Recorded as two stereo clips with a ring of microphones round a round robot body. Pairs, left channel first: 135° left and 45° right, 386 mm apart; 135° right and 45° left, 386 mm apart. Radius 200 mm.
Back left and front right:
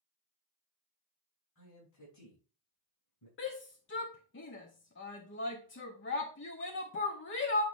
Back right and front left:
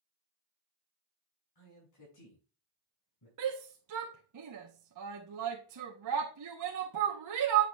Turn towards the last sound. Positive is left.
turn(degrees=80)